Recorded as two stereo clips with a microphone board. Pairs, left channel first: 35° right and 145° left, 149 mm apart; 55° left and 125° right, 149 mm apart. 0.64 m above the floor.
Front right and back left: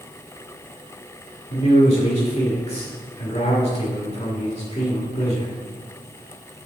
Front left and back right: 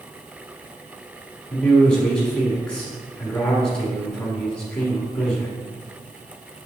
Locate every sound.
1.5 s a man speaking: 25° right, 1.1 m